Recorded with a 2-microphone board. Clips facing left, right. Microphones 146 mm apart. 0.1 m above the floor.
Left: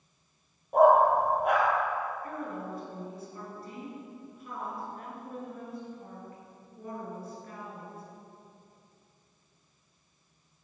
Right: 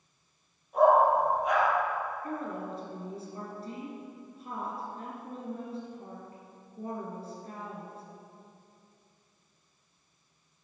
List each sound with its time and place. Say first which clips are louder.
0.7 s a dog barking: left 2 dB; 60° left (ahead or behind), 1.3 m
2.2 s a woman speaking: right 1 dB; 30° right (ahead or behind), 1.2 m